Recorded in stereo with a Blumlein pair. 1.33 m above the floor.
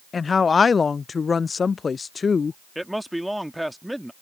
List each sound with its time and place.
0.1 s a woman speaking: 15° left
2.8 s a man speaking: straight ahead